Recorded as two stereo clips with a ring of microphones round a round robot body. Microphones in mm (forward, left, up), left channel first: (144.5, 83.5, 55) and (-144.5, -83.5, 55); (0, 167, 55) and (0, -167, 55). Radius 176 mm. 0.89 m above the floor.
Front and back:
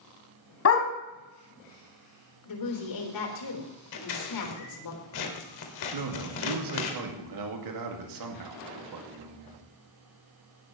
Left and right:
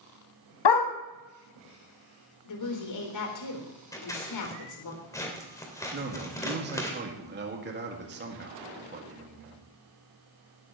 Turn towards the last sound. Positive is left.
turn(degrees=-145)